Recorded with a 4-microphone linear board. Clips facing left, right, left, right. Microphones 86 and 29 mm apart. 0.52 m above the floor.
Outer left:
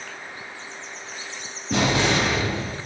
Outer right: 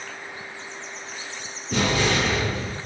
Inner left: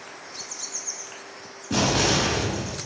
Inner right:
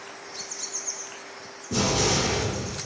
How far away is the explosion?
About 1.3 m.